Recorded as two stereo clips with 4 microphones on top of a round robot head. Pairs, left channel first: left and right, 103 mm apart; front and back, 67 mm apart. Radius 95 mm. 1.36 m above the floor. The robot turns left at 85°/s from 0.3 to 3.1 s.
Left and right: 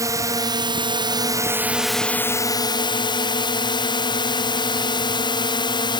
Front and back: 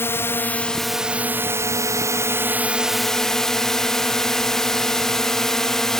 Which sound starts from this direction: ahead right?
A drone, at 0.0 s.